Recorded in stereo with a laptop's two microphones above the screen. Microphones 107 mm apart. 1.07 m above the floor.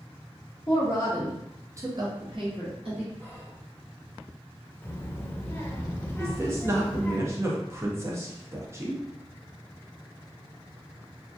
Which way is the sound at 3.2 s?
20° left (ahead or behind).